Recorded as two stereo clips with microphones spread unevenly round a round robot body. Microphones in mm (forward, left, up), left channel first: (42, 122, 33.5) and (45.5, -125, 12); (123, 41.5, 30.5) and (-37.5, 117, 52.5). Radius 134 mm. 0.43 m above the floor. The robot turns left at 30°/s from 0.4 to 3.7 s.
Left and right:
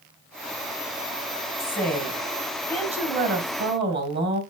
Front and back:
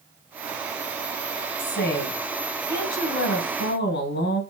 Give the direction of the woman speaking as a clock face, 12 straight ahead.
12 o'clock.